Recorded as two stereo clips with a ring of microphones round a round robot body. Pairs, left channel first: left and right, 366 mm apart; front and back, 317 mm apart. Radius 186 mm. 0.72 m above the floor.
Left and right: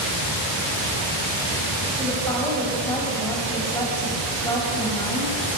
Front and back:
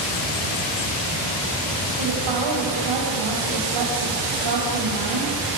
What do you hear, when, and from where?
2.0 s a woman speaking: 175° left, 5 m